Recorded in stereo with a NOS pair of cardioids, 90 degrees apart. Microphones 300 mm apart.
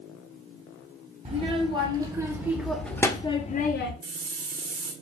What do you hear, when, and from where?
1.2 s a child speaking: 20° right, 1.5 m; by 3.9 s 55° left, 0.7 m
4.0 s a hiss: 50° right, 1.2 m